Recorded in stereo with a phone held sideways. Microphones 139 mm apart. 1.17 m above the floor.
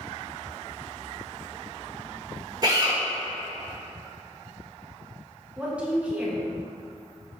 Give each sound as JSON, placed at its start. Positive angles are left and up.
{"t": 2.6, "sound": "a drill", "side_deg": -30, "distance_m": 1.6}
{"t": 5.6, "sound": "a woman speaking", "side_deg": -10, "distance_m": 1.5}